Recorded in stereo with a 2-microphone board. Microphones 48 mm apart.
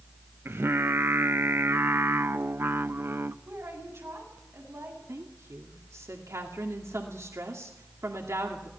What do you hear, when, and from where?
0.5 s singing: 55° right (ahead or behind), 0.6 m
3.5 s a woman speaking: 60° right (ahead or behind), 8 m
5.1 s a woman speaking: 75° right (ahead or behind), 2.5 m